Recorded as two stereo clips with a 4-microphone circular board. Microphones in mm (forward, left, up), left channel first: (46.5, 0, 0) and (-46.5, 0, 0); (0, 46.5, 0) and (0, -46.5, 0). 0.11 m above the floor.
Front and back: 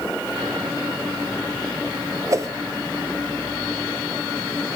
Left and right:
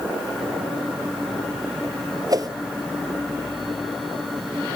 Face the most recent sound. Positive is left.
turn(degrees=-130)